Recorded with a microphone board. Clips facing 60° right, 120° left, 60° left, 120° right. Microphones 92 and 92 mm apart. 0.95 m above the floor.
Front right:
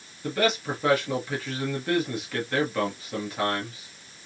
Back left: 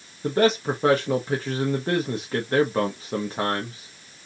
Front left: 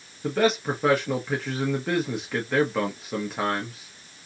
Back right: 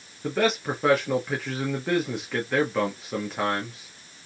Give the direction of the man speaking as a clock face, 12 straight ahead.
7 o'clock.